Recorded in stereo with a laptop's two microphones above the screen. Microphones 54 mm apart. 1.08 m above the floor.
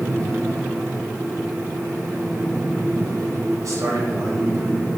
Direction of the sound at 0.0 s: 65° right (ahead or behind).